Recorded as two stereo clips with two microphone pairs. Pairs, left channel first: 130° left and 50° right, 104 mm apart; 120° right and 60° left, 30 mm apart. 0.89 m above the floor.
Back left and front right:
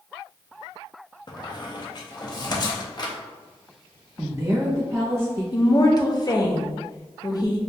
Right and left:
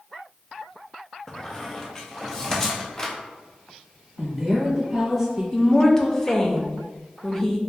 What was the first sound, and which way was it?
A squeak, 175° left.